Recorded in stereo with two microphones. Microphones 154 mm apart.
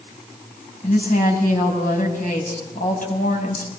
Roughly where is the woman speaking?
Left.